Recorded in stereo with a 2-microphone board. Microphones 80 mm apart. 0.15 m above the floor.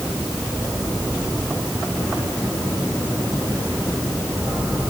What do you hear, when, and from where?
Only background noise.